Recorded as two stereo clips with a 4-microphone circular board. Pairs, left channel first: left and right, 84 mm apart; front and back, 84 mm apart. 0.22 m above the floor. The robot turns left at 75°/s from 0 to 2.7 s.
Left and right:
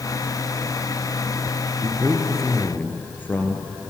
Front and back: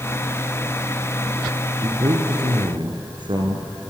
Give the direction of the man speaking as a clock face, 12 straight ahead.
5 o'clock.